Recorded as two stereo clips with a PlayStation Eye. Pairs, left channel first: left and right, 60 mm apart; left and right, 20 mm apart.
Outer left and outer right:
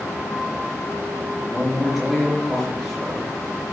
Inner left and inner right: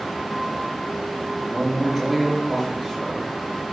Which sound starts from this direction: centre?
A man speaking, at 1.5 s.